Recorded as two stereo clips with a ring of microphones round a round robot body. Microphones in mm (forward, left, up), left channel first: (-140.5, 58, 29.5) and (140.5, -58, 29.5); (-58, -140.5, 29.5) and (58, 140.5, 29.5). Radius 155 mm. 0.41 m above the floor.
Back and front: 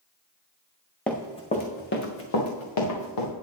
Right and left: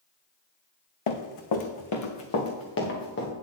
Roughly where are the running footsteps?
Behind right.